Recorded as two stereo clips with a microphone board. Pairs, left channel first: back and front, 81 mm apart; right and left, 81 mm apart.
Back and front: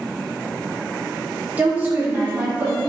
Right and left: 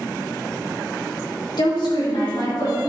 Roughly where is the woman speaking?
Right.